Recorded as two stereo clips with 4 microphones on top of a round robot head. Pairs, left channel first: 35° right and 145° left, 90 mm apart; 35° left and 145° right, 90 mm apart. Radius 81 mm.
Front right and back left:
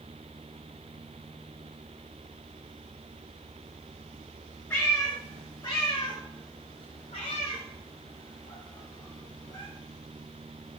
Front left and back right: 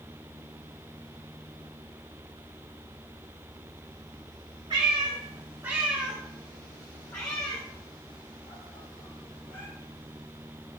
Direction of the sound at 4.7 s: 105° right.